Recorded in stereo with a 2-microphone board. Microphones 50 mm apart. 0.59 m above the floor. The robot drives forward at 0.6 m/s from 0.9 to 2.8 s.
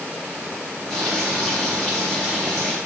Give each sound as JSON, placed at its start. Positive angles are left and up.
{"t": 0.9, "sound": "frying", "side_deg": 5, "distance_m": 1.9}